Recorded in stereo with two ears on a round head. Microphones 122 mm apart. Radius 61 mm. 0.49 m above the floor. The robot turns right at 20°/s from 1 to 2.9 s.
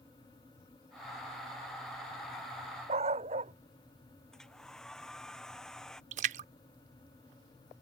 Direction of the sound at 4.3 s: 5° left (ahead or behind).